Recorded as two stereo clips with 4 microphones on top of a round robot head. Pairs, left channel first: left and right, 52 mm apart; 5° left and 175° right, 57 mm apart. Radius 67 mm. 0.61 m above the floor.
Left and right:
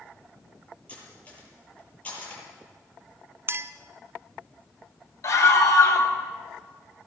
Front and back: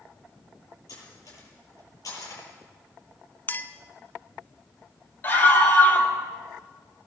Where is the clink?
50° right, 1.0 m.